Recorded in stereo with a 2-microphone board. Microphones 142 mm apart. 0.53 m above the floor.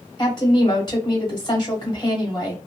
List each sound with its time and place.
0.2 s a woman speaking: 30° left (ahead or behind), 1.3 m